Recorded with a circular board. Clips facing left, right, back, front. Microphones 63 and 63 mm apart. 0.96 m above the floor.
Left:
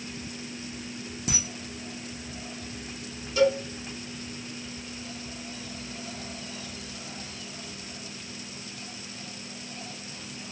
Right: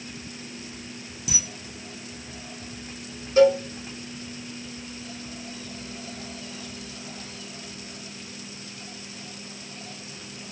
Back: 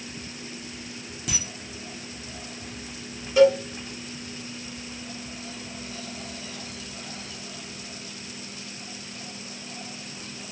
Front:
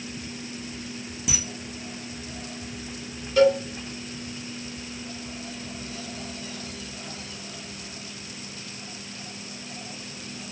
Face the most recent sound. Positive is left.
turn(degrees=-105)